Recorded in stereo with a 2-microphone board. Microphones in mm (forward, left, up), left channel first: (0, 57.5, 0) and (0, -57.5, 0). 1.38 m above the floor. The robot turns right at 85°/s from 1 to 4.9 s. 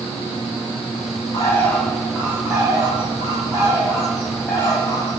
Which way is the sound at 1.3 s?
120° left.